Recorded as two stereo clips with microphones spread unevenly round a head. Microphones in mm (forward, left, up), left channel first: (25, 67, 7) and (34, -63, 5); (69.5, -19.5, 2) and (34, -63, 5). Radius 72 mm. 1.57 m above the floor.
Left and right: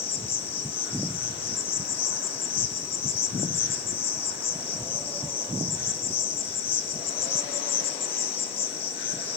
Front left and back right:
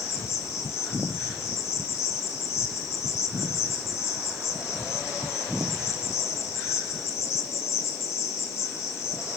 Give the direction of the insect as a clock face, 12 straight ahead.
10 o'clock.